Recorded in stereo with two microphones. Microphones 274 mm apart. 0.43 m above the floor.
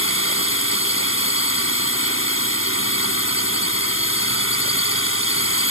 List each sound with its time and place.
0.0 s a drone: 50° left (ahead or behind)